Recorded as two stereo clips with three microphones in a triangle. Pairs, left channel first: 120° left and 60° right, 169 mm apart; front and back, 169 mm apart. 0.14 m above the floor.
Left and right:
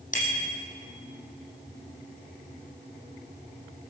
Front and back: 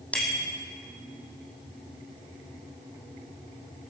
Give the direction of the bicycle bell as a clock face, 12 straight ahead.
9 o'clock.